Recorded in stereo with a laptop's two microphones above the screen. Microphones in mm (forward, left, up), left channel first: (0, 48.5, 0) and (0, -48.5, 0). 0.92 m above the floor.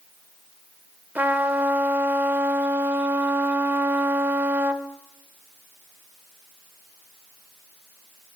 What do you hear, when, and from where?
1.1 s a trumpet: 20° right (ahead or behind), 0.6 m